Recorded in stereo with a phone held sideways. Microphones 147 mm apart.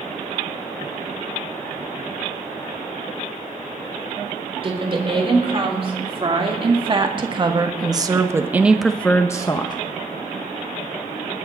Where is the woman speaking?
40° right (ahead or behind), 3.5 m; by 9.8 s 30° left (ahead or behind), 0.9 m.